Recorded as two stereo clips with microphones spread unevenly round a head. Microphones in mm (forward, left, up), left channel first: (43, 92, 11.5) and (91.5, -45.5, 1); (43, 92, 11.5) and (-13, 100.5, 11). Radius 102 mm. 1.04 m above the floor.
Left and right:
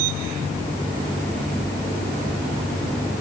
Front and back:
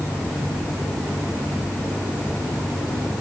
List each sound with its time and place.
Only background noise.